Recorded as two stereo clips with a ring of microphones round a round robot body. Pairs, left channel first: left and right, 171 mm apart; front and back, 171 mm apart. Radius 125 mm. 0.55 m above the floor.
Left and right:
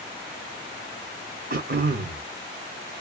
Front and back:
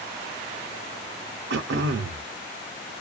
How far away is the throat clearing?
About 0.5 m.